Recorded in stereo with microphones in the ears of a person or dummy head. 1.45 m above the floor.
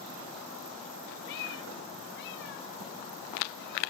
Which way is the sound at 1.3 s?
60° left (ahead or behind).